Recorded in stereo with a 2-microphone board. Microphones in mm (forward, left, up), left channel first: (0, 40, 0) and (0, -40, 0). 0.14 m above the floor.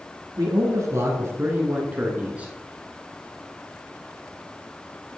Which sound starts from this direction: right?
A man speaking, at 0.4 s.